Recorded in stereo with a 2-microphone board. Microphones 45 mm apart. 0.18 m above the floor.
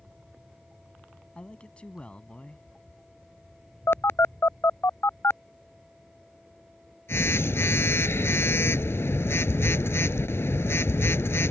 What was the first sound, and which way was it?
A man speaking, 25° left (ahead or behind).